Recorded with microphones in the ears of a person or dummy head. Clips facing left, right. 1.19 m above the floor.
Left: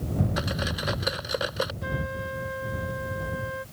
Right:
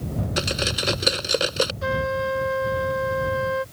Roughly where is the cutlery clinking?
Right.